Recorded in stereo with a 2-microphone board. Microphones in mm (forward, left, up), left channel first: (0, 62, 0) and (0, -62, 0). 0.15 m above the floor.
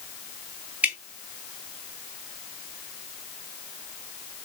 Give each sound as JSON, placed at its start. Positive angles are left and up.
{"t": 0.8, "sound": "dripping", "side_deg": -10, "distance_m": 0.8}